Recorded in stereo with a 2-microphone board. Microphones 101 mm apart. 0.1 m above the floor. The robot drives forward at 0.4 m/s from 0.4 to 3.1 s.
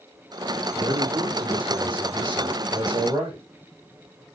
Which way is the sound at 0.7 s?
45° right (ahead or behind).